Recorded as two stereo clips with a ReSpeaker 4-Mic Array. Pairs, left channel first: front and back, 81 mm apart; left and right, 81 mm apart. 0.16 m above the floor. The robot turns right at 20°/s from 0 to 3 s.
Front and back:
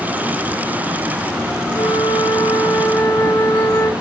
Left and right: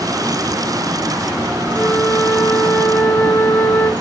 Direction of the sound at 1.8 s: 5° left.